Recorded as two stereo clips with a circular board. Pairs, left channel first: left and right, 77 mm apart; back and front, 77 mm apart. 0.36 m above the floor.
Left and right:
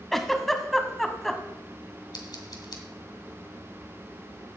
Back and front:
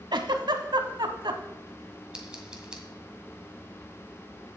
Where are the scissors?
80° left, 1.7 m.